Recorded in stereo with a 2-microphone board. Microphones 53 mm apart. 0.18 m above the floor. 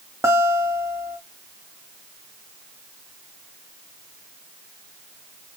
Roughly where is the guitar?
Right.